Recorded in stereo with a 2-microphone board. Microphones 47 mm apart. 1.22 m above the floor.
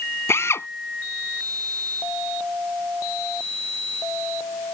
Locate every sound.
0.3 s a drill: 60° left (ahead or behind)